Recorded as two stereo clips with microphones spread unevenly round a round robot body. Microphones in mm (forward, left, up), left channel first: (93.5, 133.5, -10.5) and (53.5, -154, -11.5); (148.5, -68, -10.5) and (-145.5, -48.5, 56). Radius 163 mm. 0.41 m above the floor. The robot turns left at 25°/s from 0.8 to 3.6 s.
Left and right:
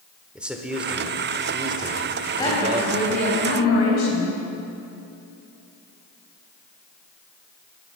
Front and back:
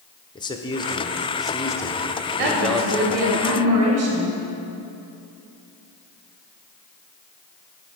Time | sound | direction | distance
0.3 | a man speaking | 15° right | 1.0 m
2.4 | a woman speaking | 160° left | 2 m